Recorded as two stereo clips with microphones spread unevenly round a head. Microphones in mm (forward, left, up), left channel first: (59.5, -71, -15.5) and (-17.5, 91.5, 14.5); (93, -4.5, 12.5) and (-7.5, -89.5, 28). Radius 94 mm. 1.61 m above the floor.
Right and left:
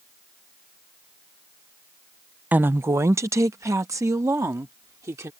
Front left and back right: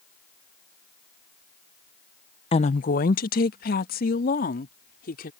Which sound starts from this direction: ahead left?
A woman speaking, at 2.5 s.